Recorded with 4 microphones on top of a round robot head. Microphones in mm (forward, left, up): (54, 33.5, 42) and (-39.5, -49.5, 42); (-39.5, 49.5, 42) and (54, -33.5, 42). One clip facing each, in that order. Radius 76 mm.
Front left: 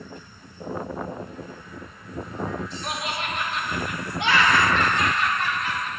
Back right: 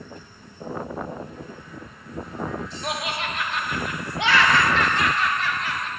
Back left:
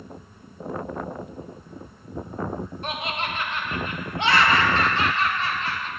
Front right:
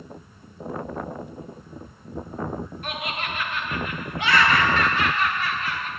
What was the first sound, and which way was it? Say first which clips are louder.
Laughter: back right 4 dB, back left 1 dB; 155° right.